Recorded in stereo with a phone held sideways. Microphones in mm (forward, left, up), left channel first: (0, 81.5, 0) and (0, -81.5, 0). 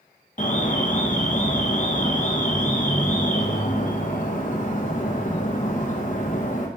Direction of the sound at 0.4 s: 50° left (ahead or behind).